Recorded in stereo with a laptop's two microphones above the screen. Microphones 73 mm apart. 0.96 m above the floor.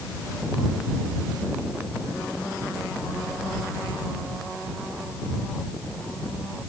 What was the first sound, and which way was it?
Only background noise.